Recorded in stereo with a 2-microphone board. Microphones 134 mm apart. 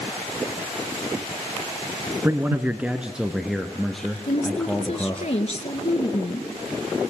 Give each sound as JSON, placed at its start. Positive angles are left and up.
{"t": 2.2, "sound": "a man speaking", "side_deg": -20, "distance_m": 1.3}
{"t": 4.3, "sound": "a woman speaking", "side_deg": 55, "distance_m": 2.0}